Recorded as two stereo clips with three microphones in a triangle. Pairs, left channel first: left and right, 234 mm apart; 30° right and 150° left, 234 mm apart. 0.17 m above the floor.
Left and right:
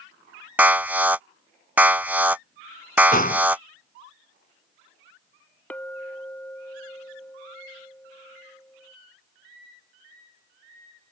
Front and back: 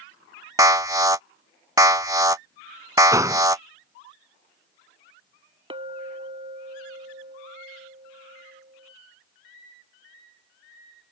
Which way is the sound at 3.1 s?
85° left.